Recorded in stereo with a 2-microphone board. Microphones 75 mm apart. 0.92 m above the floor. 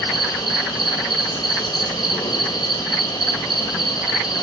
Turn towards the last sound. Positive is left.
turn(degrees=70)  # may be behind; listen again after turning